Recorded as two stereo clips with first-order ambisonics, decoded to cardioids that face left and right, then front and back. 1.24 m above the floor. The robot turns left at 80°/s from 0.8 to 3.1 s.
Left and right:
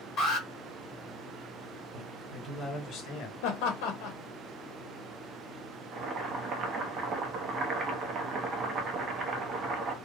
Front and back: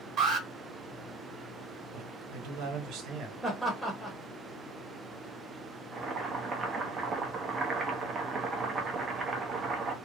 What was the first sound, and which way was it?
An alarm, 130° left.